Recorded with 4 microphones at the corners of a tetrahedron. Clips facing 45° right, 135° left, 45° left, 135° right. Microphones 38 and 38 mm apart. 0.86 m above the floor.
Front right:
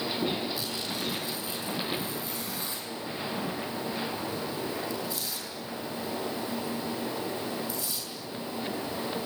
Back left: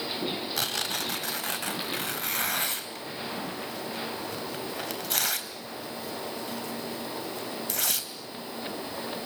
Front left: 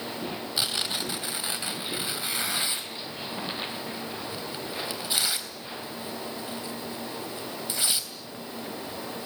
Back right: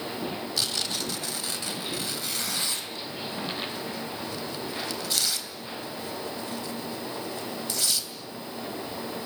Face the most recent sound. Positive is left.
turn(degrees=115)